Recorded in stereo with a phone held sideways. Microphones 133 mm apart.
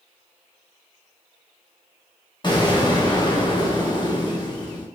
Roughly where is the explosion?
Left.